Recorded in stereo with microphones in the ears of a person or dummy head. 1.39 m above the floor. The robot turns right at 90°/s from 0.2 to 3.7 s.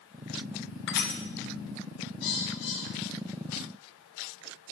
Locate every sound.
0.9 s crushing: 70° left (ahead or behind), 1.4 m; by 1.2 s 40° left (ahead or behind), 1.4 m
2.2 s a bird: 60° left (ahead or behind), 5 m; by 3.6 s 10° right (ahead or behind), 5 m